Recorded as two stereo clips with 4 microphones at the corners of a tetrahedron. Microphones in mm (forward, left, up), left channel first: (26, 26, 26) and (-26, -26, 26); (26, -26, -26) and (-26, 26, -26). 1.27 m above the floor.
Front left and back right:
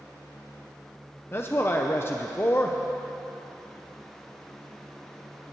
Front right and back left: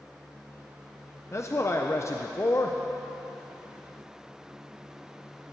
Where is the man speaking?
5° right, 0.7 m.